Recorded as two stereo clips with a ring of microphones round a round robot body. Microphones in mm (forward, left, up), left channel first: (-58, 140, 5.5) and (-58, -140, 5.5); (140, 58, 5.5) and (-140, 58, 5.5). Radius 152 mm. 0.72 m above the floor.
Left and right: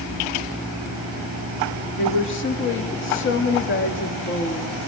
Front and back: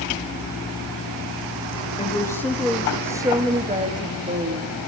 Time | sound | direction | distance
2.0 | a woman speaking | 65° left | 1.3 m